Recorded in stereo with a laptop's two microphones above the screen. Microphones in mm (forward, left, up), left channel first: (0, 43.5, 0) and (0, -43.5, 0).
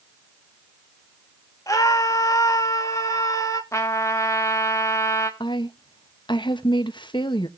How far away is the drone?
I don't hear a drone.